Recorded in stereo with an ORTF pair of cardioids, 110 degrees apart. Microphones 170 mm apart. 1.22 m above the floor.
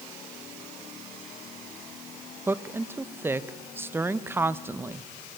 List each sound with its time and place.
2.5 s a woman speaking: 15° right, 1.1 m